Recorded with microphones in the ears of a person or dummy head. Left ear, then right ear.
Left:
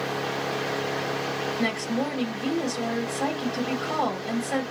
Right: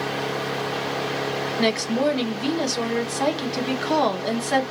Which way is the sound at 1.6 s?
50° right (ahead or behind).